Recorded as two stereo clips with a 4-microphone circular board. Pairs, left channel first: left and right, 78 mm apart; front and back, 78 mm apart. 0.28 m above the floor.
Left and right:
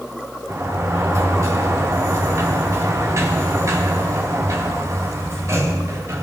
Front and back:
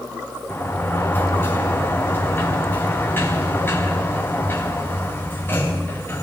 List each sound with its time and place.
0.5 s a sliding door: 55° right, 2.5 m